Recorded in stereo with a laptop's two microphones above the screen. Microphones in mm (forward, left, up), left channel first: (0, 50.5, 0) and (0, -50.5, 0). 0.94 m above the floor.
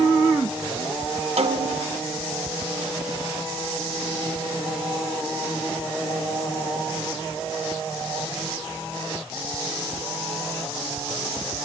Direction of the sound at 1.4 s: 75° right (ahead or behind).